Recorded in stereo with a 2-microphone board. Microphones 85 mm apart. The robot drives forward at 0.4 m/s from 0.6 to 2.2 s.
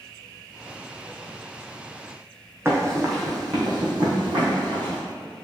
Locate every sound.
2.6 s running footsteps: 30° right (ahead or behind), 1.1 m; by 5.0 s 70° right (ahead or behind), 1.6 m